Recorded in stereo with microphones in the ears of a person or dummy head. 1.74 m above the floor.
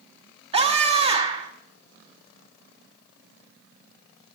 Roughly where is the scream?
Right.